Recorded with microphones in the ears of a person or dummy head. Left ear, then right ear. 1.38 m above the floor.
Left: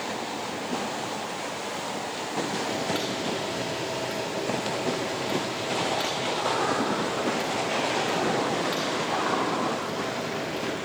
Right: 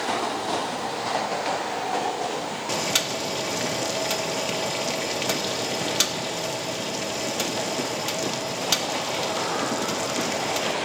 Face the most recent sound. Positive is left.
turn(degrees=-65)  # may be behind; listen again after turning